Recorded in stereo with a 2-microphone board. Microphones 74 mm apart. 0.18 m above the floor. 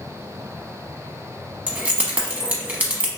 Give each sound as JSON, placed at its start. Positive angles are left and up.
{"t": 1.7, "sound": "keys jangling", "side_deg": -20, "distance_m": 0.7}